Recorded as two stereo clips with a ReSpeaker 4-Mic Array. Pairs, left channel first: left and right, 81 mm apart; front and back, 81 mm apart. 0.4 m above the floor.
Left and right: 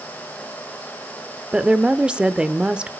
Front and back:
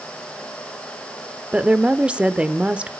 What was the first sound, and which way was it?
A woman speaking, 140° right.